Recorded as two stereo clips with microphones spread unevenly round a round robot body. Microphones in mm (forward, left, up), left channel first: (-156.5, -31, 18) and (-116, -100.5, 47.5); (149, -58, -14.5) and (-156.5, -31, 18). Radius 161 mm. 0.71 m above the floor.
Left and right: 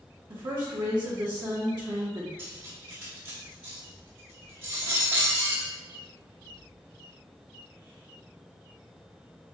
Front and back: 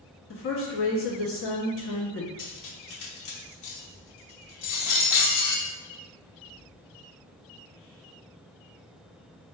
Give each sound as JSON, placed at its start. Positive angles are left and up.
{"t": 0.3, "sound": "a woman speaking", "azimuth_deg": -25, "distance_m": 0.7}
{"t": 2.4, "sound": "cutlery clinking", "azimuth_deg": -30, "distance_m": 0.9}